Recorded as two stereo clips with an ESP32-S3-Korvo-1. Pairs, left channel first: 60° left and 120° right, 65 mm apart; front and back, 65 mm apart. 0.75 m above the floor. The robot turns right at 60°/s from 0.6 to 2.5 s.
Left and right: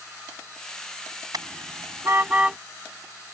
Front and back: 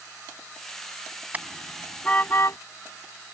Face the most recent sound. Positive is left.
turn(degrees=-45)